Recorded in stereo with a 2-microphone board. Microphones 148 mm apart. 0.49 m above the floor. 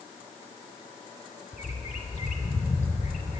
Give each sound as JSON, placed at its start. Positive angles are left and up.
{"t": 1.5, "sound": "a bird", "side_deg": 50, "distance_m": 0.7}